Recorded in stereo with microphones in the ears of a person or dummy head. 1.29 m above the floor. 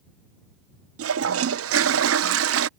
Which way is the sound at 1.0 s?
70° right (ahead or behind).